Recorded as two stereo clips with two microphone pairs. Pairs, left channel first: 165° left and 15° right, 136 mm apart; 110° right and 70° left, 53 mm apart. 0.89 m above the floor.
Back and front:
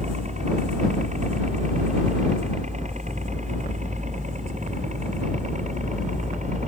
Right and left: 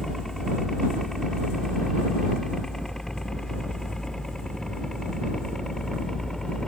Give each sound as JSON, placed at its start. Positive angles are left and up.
{"t": 0.0, "sound": "a helicopter", "azimuth_deg": -20}